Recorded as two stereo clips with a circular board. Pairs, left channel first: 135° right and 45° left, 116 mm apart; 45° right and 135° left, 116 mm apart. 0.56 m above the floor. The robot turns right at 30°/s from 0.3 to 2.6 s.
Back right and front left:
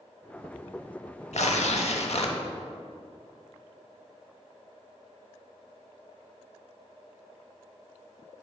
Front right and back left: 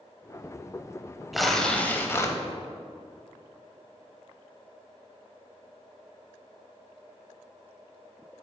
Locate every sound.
1.3 s tearing paper: 135° right, 0.6 m; by 2.4 s 105° right, 0.6 m